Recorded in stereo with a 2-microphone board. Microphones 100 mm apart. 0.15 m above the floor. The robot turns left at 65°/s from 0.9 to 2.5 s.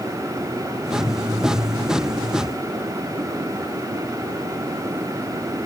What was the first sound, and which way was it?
Only background noise.